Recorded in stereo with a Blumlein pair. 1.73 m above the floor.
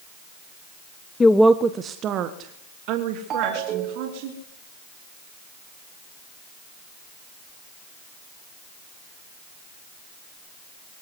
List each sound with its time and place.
1.2 s a woman speaking: 15° left, 0.7 m; by 4.3 s 45° right, 4.5 m
3.3 s a ringtone: 30° right, 2.5 m